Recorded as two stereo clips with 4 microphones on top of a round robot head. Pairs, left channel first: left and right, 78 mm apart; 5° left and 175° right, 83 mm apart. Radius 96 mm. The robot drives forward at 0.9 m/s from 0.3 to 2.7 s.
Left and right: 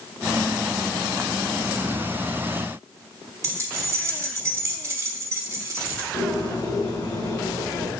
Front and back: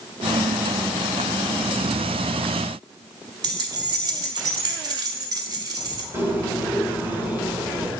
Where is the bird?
125° left, 3 m.